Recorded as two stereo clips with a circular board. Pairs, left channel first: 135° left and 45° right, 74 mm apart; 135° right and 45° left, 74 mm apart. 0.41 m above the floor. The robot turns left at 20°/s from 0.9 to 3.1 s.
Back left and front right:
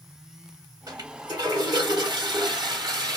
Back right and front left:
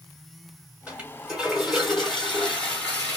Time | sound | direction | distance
0.9 | a toilet flushing | 30° right | 2.5 m